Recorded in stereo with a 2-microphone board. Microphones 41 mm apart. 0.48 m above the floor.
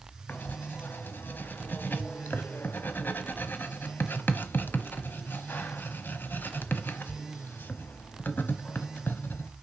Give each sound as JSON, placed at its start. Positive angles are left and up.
{"t": 0.3, "sound": "writing", "side_deg": 50, "distance_m": 1.0}